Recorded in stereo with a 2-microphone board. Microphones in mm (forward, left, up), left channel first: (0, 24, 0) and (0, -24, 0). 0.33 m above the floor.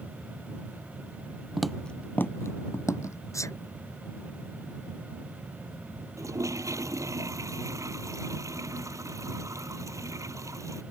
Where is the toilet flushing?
85° right.